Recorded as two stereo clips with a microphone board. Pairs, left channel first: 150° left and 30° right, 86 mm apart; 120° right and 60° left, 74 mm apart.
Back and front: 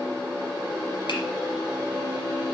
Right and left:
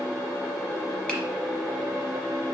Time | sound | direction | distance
1.1 | a finger snap | 170° left | 2.5 m